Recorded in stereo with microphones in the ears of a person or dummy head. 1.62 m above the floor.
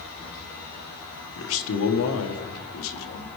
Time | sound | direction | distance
1.4 | a man speaking | 75° left (ahead or behind) | 1.2 m